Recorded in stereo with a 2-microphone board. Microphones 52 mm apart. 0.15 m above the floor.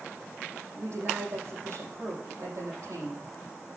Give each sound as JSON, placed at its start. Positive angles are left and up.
{"t": 0.8, "sound": "a woman speaking", "side_deg": -70, "distance_m": 5.5}